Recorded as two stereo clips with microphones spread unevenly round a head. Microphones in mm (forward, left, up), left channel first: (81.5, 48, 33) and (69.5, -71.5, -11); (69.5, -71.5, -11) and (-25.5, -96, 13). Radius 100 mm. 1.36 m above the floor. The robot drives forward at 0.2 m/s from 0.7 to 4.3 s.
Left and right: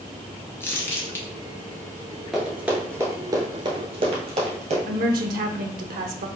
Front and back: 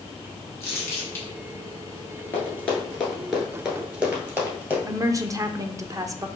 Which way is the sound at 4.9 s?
115° right.